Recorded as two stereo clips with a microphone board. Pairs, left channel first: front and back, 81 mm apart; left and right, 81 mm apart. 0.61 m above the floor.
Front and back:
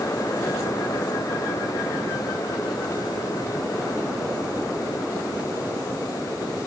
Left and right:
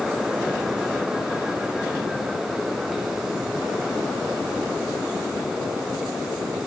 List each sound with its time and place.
Only background noise.